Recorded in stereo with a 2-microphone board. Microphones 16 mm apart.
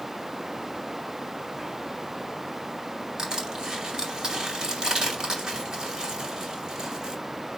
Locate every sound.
3.2 s crushing: 45° right (ahead or behind), 2 m